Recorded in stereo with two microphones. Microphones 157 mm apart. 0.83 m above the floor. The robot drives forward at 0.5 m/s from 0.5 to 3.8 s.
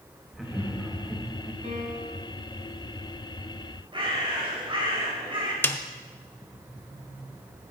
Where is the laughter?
5° right (ahead or behind), 1.4 m.